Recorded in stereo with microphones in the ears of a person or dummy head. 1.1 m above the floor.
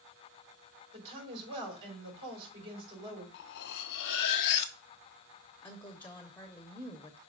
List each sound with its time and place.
0.9 s a woman speaking: 30° right (ahead or behind), 3 m
3.3 s cutlery clinking: 60° left (ahead or behind), 0.6 m
5.6 s a woman speaking: 5° left (ahead or behind), 0.7 m